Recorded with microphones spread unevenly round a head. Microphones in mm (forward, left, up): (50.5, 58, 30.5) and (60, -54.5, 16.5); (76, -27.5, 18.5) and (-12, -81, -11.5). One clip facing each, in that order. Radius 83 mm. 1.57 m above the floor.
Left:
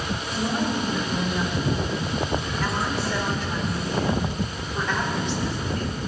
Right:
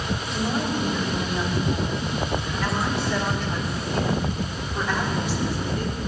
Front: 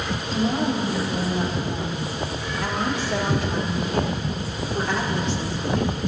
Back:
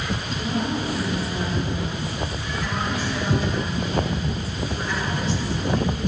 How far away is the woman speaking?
About 7 m.